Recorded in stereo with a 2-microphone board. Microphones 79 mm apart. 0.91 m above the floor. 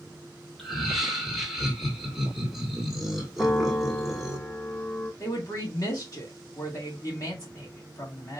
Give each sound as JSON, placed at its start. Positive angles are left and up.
{"t": 0.6, "sound": "laughter", "side_deg": 0, "distance_m": 1.3}
{"t": 3.4, "sound": "a piano", "side_deg": 25, "distance_m": 1.4}
{"t": 5.2, "sound": "a woman speaking", "side_deg": 45, "distance_m": 1.7}